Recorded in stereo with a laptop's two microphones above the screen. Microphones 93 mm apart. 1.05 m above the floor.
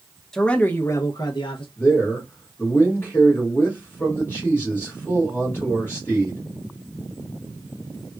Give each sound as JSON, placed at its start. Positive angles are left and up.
{"t": 0.3, "sound": "a man speaking", "side_deg": 5, "distance_m": 0.7}
{"t": 1.8, "sound": "a man speaking", "side_deg": 25, "distance_m": 1.7}